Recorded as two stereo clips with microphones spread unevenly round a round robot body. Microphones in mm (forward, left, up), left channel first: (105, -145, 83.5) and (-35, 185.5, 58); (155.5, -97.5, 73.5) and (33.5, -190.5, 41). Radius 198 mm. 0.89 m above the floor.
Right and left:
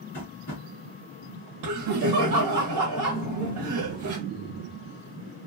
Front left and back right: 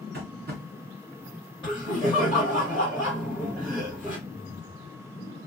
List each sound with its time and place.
0.1 s tapping: 130° right, 1.6 m
1.6 s laughter: 130° left, 1.1 m